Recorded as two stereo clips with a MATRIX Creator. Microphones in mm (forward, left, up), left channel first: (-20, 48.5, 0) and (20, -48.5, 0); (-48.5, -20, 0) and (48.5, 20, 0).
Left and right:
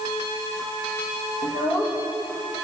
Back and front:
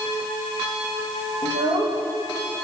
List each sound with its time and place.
1.4 s a child speaking: 55° left, 5.5 m